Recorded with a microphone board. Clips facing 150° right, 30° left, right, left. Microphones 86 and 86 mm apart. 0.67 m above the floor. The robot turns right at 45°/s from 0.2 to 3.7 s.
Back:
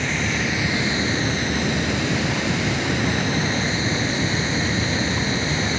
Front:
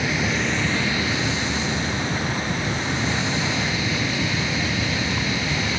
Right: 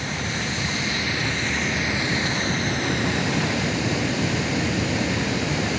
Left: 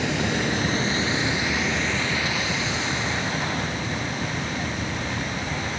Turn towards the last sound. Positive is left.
turn(degrees=-90)